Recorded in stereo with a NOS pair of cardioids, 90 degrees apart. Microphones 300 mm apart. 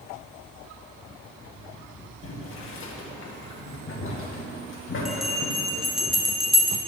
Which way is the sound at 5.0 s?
Straight ahead.